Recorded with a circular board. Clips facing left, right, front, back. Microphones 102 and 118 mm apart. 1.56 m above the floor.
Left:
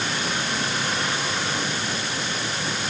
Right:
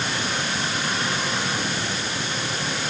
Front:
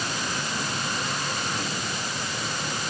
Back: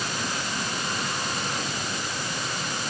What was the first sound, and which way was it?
Only background noise.